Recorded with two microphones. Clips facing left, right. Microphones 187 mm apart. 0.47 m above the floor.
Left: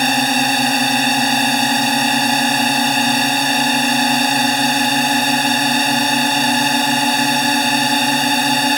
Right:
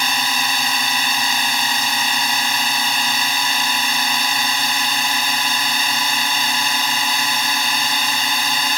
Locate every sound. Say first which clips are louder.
0.0 s a drone: left 9 dB; 50° left (ahead or behind)